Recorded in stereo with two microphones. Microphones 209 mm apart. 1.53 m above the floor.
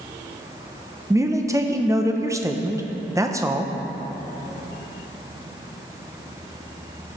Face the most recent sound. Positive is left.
turn(degrees=-15)  # may be behind; listen again after turning